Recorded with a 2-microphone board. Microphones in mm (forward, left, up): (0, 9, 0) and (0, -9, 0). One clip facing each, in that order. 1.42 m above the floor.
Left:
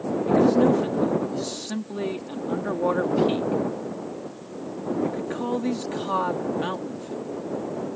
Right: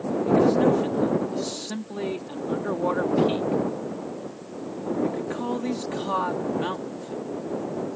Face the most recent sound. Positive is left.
turn(degrees=0)  # may be behind; listen again after turning